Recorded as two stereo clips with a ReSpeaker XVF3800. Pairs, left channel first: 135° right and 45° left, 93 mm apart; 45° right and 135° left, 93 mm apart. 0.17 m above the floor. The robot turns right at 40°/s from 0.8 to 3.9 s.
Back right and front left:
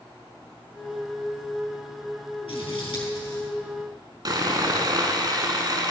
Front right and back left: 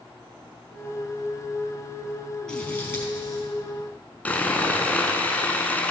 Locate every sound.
2.5 s scissors: 125° right, 4.5 m; by 3.5 s 85° right, 4.5 m
4.2 s sawing: 20° left, 1.3 m